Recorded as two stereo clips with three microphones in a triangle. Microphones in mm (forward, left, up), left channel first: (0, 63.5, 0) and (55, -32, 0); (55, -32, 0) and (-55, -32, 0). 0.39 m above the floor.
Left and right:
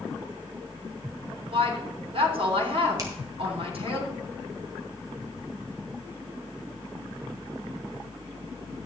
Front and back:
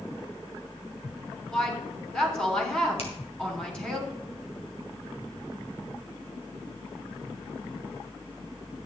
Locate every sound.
1.5 s a woman speaking: 80° right, 3 m
3.0 s a finger snap: 5° right, 2.5 m